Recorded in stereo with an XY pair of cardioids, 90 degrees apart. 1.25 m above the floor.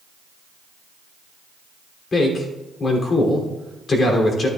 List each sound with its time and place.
2.1 s a man speaking: 50° left, 3 m